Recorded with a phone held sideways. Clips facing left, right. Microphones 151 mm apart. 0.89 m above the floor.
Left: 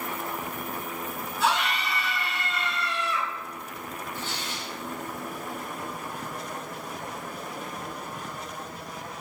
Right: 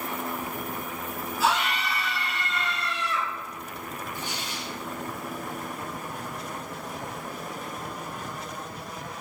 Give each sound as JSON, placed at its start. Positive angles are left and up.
{"t": 1.4, "sound": "a scream", "side_deg": -5, "distance_m": 1.3}
{"t": 4.2, "sound": "tearing paper", "side_deg": -15, "distance_m": 0.9}